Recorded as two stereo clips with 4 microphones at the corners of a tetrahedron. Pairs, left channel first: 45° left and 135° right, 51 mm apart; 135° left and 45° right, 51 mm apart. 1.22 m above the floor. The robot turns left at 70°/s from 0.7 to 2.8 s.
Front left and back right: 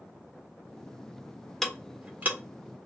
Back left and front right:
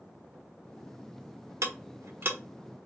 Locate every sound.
1.6 s ticking: 40° right, 0.9 m; by 2.4 s 90° right, 0.9 m